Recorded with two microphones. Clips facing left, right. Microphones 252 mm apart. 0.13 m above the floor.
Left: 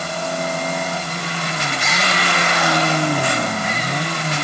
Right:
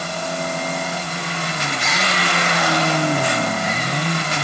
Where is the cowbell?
No cowbell in this recording.